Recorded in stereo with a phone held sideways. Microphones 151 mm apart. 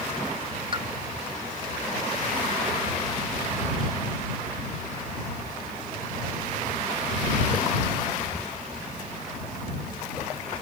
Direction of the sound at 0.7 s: 35° right (ahead or behind).